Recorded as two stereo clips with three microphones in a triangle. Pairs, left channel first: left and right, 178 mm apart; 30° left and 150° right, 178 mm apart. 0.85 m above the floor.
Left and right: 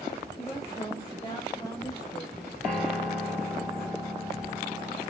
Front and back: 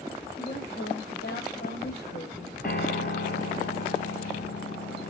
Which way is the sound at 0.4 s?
25° left.